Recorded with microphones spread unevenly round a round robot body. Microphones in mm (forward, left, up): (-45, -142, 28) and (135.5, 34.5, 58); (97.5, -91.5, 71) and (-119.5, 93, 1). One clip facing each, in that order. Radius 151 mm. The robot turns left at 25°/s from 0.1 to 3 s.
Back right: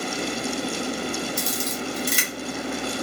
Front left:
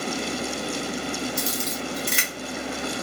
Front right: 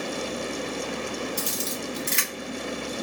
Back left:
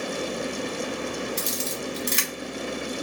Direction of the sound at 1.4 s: 165° right.